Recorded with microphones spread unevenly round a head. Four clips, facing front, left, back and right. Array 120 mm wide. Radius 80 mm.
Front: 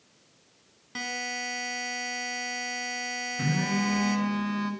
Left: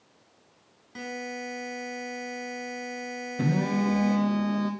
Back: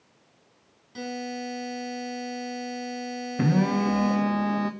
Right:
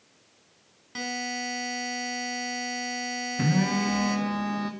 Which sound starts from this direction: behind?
A phone buzzing, at 3.4 s.